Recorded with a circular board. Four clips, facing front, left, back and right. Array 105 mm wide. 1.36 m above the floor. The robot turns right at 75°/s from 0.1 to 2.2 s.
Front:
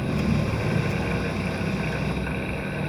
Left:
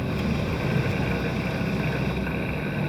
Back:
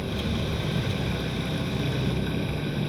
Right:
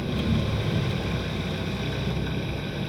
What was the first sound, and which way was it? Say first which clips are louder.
An engine running: even, front 5 dB; 15° left.